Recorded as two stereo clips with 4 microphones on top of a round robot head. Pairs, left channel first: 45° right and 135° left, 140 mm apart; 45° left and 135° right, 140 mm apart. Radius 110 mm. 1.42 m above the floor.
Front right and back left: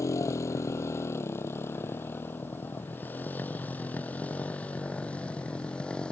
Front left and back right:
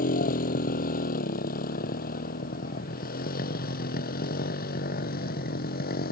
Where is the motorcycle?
25° left; by 6.1 s 35° left.